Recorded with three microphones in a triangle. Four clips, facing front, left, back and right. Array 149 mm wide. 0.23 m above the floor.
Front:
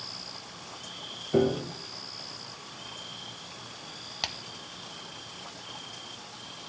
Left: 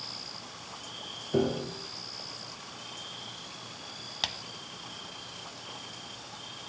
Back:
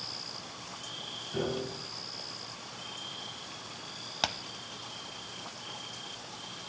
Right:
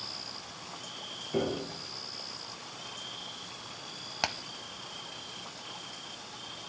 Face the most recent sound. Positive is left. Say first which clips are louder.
# right 6 dB, back 5 dB
turn(degrees=-130)